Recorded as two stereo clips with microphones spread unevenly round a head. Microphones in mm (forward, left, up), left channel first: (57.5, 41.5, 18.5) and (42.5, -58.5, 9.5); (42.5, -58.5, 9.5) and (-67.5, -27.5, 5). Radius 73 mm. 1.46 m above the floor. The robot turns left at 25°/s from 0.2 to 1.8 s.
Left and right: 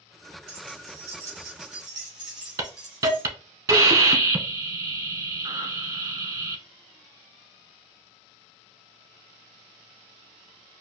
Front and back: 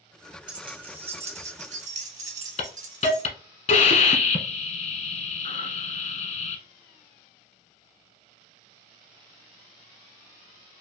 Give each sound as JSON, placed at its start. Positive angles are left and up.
{"t": 0.5, "sound": "keys jangling", "azimuth_deg": -150, "distance_m": 1.2}
{"t": 2.6, "sound": "a hiss", "azimuth_deg": -40, "distance_m": 1.1}